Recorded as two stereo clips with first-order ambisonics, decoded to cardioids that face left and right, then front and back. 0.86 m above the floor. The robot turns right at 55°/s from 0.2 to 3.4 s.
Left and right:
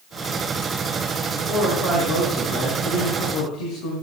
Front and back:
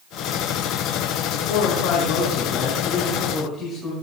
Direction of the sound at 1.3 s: 15° right.